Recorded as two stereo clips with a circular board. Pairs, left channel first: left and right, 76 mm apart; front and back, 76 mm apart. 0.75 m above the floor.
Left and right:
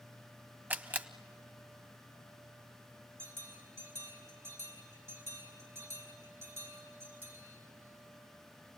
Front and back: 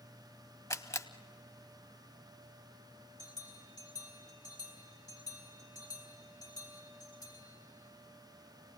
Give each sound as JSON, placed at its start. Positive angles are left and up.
{"t": 0.7, "sound": "a camera shutter", "azimuth_deg": -30, "distance_m": 0.8}
{"t": 3.2, "sound": "a bell", "azimuth_deg": -30, "distance_m": 4.5}